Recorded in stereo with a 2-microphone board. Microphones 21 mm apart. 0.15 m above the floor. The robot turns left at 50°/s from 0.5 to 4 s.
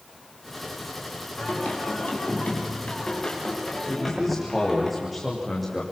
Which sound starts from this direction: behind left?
Singing, at 1.4 s.